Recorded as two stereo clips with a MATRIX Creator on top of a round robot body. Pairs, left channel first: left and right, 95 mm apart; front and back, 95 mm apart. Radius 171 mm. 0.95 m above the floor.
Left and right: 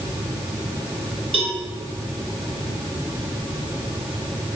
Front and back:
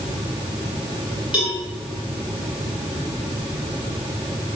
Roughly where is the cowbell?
Right.